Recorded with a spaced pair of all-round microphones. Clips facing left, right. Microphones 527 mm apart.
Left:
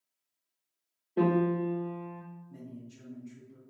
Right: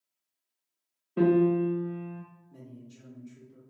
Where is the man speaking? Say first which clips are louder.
Left 3 dB; 65° left (ahead or behind), 1.4 m.